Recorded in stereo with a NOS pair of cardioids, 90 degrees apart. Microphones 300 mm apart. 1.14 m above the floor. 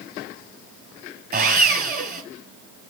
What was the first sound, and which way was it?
Sawing, 30° right.